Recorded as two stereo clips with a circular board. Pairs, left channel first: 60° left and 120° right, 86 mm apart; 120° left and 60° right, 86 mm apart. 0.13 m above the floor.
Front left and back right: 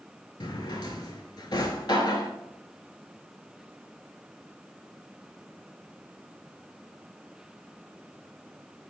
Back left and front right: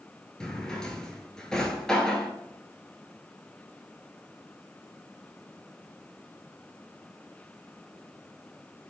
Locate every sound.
0.4 s a drawer: 40° left, 0.5 m